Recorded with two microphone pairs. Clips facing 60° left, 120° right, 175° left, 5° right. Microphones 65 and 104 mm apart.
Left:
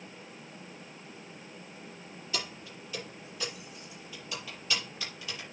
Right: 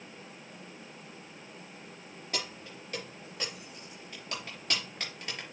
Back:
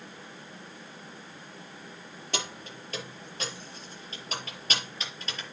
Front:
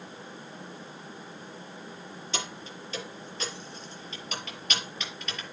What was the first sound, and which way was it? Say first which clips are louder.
Keys jangling: even, back 1 dB; 150° right.